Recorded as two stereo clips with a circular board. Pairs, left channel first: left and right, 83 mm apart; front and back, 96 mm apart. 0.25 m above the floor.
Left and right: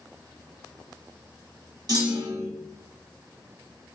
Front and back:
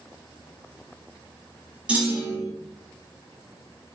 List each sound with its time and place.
1.9 s a clunk: 105° right, 1.3 m